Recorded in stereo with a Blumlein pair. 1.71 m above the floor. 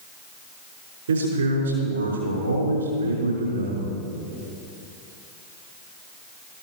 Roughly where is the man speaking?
Right.